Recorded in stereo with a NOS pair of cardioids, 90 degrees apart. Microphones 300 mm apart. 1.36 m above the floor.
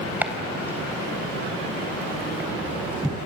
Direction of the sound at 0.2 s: 5° right.